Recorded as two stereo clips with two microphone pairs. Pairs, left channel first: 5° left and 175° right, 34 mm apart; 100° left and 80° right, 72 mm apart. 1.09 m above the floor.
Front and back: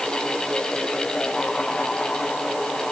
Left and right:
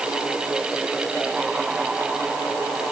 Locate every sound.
Only background noise.